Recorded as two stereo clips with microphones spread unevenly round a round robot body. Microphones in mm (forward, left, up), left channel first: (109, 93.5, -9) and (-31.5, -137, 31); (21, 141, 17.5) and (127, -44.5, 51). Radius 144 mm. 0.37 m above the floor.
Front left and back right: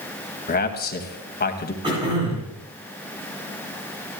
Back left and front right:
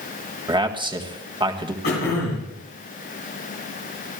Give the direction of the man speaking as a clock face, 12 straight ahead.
12 o'clock.